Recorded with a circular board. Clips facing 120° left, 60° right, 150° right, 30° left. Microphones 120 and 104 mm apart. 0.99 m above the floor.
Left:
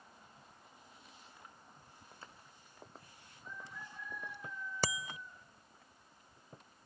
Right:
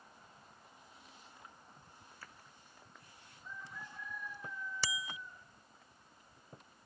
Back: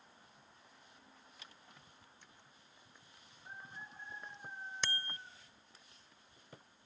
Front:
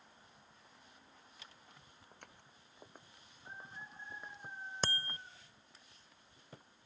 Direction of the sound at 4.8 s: 80° left.